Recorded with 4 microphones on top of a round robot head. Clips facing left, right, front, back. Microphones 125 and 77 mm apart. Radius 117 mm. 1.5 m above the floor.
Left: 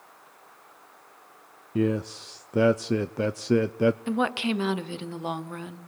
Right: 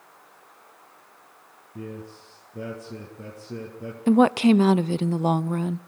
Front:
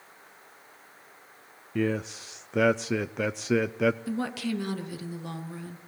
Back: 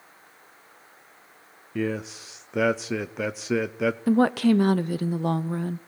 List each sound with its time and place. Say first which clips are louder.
1.8 s a man speaking: left 12 dB, even; 90° left, 0.6 m
4.1 s a woman speaking: right 10 dB, back 11 dB; 140° right, 0.7 m